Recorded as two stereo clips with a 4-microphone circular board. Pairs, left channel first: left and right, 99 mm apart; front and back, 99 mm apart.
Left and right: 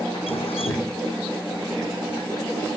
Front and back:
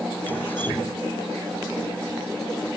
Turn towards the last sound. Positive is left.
turn(degrees=70)